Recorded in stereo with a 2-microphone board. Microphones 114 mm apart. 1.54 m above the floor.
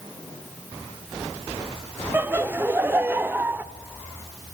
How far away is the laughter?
About 0.8 m.